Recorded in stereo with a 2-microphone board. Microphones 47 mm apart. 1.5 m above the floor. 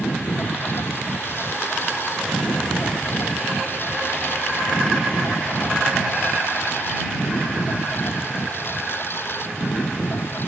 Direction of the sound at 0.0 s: 55° left (ahead or behind).